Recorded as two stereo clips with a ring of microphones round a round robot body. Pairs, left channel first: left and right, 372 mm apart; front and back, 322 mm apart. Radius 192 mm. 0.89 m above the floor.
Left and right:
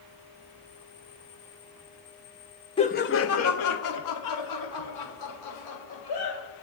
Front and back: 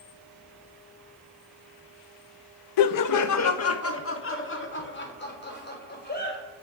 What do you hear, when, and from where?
2.8 s laughter: 15° left, 0.6 m; by 6.4 s 60° left, 3.5 m